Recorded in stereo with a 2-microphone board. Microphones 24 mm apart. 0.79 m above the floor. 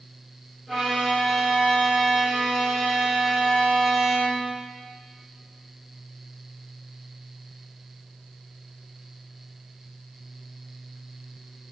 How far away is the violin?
About 3.5 m.